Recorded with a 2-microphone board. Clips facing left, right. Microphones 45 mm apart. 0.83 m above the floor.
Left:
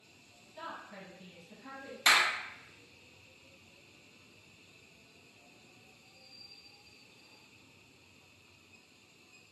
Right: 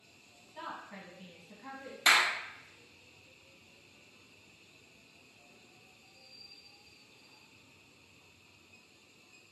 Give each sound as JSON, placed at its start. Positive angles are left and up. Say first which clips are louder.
{"t": 0.6, "sound": "a woman speaking", "louder": "right 1 dB", "side_deg": -30, "distance_m": 1.1}
{"t": 2.1, "sound": "a clap", "louder": "even", "side_deg": -15, "distance_m": 0.6}